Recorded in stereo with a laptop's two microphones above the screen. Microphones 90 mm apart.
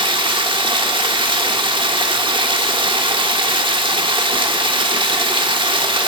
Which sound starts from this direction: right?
Running water, at 0.0 s.